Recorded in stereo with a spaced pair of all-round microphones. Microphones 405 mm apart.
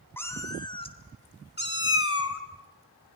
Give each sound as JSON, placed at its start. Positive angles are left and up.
{"t": 0.2, "sound": "a cat meowing", "side_deg": 5, "distance_m": 2.5}